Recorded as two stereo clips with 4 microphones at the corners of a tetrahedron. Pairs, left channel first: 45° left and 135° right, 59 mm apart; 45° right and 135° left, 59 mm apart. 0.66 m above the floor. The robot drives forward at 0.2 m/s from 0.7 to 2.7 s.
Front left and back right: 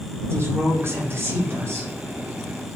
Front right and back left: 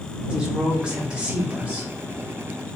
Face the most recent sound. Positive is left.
turn(degrees=-165)